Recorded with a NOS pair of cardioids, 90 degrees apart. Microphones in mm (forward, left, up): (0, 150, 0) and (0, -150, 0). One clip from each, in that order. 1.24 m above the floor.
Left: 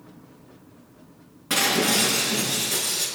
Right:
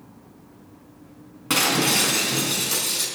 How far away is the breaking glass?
About 4.5 m.